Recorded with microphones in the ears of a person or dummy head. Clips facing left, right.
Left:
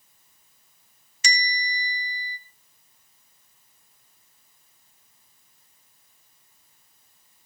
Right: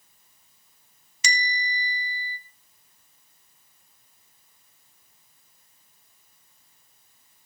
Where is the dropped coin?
I don't hear a dropped coin.